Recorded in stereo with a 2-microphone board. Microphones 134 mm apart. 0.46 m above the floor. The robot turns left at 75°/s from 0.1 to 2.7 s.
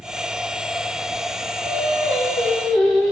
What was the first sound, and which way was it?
Singing, 105° right.